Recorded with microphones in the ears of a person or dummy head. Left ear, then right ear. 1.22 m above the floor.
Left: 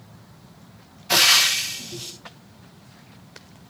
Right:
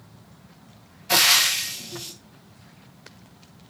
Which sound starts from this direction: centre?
Frying, at 1.1 s.